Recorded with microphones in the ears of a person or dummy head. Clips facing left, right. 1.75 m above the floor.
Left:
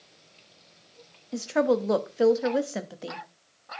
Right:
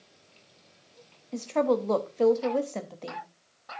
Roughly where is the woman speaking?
Centre.